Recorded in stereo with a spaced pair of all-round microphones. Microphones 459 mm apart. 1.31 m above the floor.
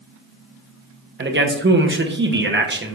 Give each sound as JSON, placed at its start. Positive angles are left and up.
{"t": 1.2, "sound": "a man speaking", "side_deg": -25, "distance_m": 0.5}